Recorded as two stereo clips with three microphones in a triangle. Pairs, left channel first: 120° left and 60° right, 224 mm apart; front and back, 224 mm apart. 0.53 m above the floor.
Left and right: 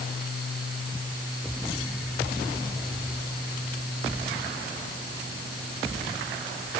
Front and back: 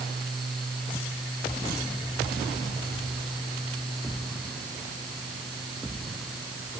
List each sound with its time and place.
Only background noise.